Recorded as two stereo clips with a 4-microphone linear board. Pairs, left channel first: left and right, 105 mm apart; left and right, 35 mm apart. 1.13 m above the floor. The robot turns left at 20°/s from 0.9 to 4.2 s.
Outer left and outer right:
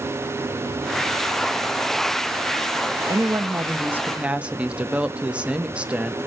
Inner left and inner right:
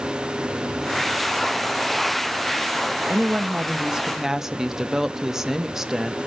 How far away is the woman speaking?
About 0.9 m.